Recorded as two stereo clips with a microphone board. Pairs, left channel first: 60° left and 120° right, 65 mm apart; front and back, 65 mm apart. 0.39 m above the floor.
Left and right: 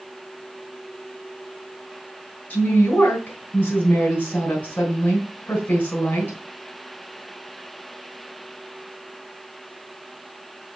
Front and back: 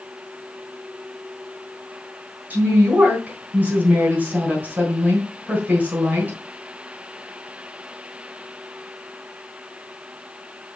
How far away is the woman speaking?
About 3.5 m.